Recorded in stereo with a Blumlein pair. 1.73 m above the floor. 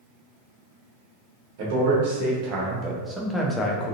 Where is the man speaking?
45° right, 1.2 m; by 4.0 s 40° left, 0.6 m.